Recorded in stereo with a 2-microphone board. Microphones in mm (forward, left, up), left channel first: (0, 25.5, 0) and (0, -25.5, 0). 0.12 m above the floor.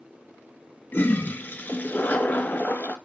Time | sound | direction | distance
0.9 | a toilet flushing | 35° left (ahead or behind) | 0.5 m